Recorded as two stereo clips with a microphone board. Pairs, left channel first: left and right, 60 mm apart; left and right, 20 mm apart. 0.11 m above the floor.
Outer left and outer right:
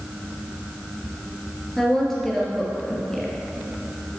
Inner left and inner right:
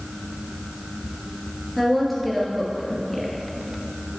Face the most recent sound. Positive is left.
turn(degrees=5)  # may be behind; listen again after turning